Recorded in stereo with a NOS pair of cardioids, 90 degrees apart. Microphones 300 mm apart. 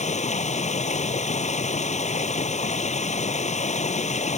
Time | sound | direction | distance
0.0 | running water | 25° left | ?